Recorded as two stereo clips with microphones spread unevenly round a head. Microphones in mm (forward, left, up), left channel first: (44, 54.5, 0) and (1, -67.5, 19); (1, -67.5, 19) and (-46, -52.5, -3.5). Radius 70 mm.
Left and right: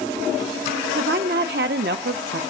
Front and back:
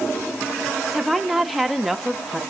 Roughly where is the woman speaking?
Right.